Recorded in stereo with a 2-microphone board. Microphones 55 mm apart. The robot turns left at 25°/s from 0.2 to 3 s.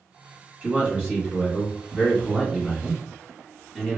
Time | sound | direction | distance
0.6 | a man speaking | 25° right (ahead or behind) | 1.7 m